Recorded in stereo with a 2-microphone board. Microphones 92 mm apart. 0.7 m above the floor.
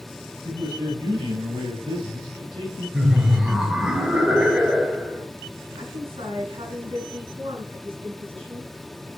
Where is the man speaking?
80° right, 6 m; by 2.8 s 60° right (ahead or behind), 8.5 m.